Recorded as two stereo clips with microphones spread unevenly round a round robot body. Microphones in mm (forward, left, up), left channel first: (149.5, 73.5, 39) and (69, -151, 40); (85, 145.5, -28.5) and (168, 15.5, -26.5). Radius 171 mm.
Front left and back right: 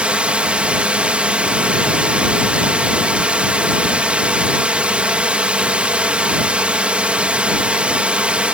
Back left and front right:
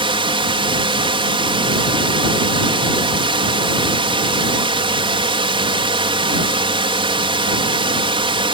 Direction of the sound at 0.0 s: 25° right.